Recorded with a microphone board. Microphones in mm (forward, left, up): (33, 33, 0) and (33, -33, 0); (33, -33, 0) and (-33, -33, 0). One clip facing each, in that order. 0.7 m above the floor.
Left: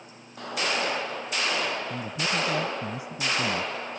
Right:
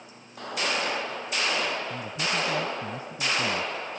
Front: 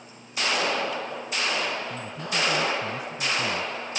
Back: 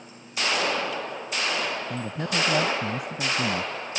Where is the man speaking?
165° left.